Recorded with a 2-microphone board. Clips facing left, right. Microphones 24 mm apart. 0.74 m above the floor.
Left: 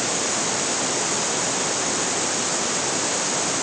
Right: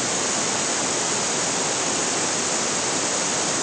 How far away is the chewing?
I don't hear chewing.